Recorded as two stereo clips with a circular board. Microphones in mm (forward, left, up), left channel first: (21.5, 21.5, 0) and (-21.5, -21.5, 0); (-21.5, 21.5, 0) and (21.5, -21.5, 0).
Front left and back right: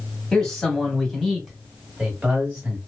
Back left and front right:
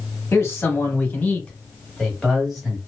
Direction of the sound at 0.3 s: 120° left.